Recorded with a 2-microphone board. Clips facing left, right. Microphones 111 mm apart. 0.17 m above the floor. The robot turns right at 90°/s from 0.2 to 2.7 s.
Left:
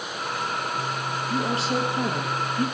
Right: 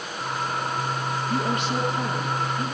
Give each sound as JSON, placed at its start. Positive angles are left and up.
{"t": 1.3, "sound": "a woman speaking", "azimuth_deg": 10, "distance_m": 3.5}